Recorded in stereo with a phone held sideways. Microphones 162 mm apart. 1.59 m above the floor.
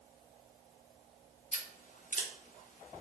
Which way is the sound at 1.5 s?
50° left (ahead or behind).